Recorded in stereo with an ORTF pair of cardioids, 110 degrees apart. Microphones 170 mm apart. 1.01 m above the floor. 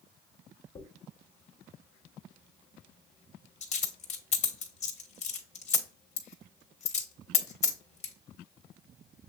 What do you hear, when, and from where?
0.8 s a dropped coin: 40° left, 1.2 m